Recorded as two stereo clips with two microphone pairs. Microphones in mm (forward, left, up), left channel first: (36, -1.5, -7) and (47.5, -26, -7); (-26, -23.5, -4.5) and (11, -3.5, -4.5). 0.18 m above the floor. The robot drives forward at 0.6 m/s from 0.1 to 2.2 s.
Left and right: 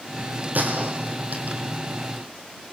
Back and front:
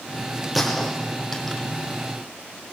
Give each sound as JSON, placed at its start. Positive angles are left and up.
{"t": 0.6, "sound": "a gunshot", "azimuth_deg": -60, "distance_m": 4.0}